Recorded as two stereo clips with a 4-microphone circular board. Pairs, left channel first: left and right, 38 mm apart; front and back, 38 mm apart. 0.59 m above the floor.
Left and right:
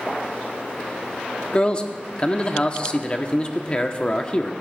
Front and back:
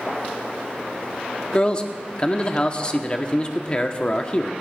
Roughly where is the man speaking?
Ahead left.